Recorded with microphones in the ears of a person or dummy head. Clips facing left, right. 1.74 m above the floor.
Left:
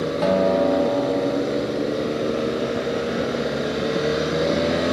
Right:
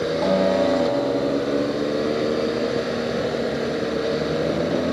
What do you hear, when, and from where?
0.2 s a guitar: 15° left (ahead or behind), 2 m